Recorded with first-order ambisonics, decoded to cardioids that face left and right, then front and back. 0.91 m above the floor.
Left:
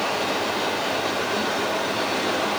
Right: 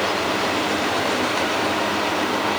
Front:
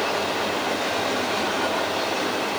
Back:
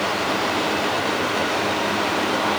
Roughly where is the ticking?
No ticking in this recording.